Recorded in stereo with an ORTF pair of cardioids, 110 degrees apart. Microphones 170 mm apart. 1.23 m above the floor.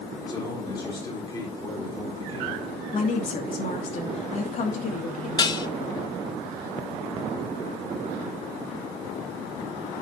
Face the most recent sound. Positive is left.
turn(degrees=25)